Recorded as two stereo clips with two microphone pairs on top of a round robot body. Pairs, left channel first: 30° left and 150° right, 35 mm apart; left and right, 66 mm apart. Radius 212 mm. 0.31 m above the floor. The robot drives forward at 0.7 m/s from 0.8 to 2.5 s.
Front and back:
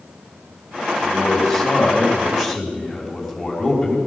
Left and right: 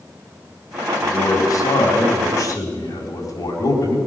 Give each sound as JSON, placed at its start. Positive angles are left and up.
{"t": 1.0, "sound": "a man speaking", "azimuth_deg": 105, "distance_m": 3.5}